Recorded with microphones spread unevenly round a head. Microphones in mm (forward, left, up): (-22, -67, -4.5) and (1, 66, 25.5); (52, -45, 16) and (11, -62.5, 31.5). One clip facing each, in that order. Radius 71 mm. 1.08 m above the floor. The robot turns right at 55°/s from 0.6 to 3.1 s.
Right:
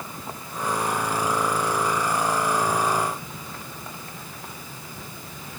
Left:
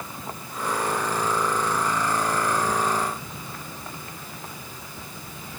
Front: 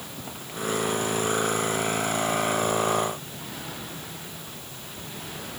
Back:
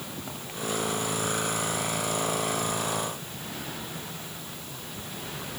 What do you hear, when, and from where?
Only background noise.